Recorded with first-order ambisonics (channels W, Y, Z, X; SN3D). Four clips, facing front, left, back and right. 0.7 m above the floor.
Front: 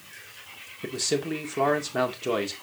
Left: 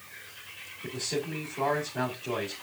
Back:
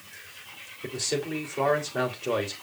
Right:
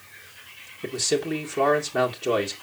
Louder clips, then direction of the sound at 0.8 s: Right 8 dB, front 2 dB; 50° right.